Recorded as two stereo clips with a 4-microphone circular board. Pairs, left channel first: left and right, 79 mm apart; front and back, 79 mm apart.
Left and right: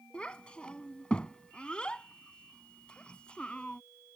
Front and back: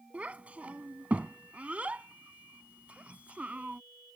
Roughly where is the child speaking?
Behind left.